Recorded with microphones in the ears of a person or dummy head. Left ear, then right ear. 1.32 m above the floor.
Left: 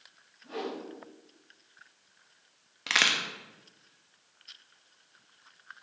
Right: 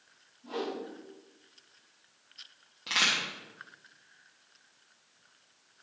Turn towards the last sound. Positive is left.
turn(degrees=50)  # may be behind; listen again after turning